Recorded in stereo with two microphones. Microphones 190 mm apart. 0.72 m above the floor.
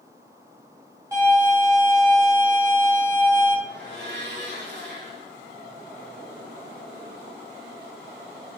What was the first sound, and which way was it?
A violin, 15° right (ahead or behind).